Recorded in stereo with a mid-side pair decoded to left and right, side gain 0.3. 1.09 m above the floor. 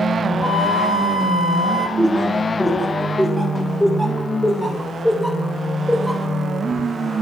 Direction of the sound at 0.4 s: 50° left.